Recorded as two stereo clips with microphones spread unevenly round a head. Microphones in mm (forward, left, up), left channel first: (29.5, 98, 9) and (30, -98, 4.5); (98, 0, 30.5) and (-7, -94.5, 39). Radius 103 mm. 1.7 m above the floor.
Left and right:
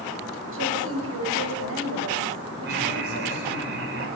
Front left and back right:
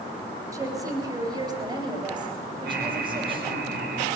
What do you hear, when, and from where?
0.5 s a woman speaking: 70° right, 8 m; by 3.6 s 85° right, 8.5 m
2.6 s laughter: 135° right, 6.5 m